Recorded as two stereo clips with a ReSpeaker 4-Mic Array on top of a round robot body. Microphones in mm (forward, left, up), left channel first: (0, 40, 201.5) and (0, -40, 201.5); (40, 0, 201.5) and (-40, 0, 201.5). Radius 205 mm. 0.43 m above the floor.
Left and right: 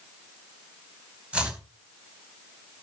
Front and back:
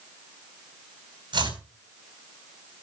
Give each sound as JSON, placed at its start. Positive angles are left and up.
{"t": 1.3, "sound": "chopping", "azimuth_deg": -165, "distance_m": 5.5}